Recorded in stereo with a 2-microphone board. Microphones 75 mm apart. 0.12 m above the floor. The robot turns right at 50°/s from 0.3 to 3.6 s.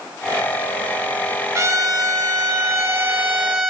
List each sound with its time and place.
1.6 s a trumpet: 120° right, 1.8 m; by 3.7 s 20° right, 1.8 m